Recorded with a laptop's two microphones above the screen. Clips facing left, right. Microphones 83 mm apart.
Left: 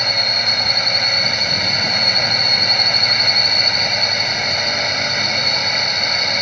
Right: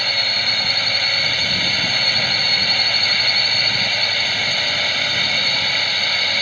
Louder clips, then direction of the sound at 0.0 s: Left 2 dB; 15° left (ahead or behind).